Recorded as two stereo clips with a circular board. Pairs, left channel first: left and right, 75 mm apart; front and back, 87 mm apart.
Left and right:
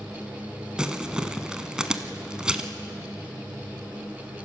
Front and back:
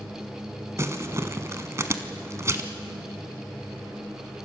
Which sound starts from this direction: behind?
Crumpling, at 0.8 s.